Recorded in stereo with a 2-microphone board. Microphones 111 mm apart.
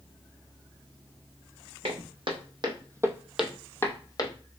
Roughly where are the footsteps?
Right.